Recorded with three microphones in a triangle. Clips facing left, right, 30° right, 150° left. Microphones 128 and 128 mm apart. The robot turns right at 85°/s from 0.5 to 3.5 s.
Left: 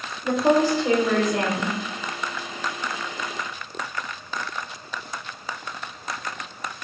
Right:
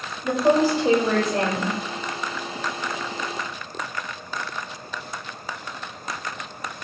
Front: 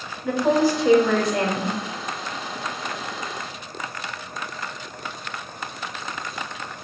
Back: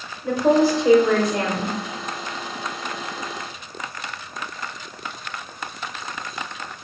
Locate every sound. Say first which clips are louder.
0.2 s a woman speaking: even, back 2 dB; straight behind, 1.4 m; by 1.8 s 75° right, 1.4 m